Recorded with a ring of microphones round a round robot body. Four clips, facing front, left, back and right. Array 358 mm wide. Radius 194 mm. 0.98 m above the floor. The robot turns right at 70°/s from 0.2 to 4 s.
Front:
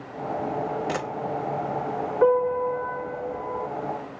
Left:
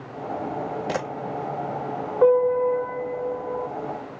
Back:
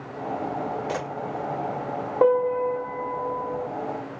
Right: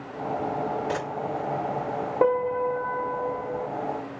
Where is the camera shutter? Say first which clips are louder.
Left 2 dB, front 1 dB; 70° left, 1.0 m; by 1.1 s 85° left, 1.0 m.